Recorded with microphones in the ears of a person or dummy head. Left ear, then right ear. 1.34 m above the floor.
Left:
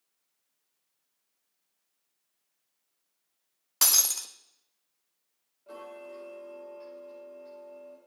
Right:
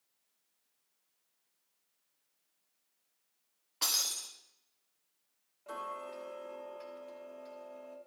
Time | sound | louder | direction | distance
3.8 | breaking glass | left 7 dB | 50° left (ahead or behind) | 0.9 m
5.7 | ticking | right 2 dB | 35° right (ahead or behind) | 1.4 m